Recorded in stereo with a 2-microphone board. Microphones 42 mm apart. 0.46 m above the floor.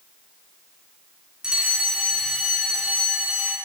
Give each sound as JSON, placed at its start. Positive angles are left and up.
{"t": 1.4, "sound": "a fire alarm", "side_deg": -20, "distance_m": 2.0}